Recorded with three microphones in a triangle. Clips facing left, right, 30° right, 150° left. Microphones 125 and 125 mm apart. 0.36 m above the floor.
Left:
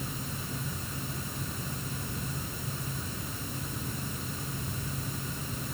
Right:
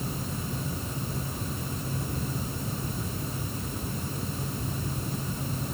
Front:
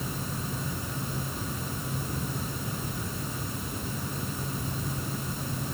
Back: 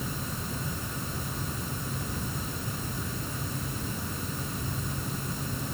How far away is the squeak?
No squeak in this recording.